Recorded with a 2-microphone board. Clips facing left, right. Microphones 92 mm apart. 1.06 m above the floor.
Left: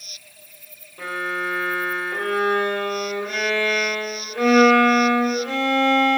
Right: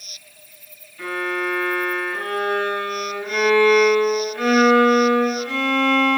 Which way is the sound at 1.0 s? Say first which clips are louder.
Right 2 dB; 70° left (ahead or behind).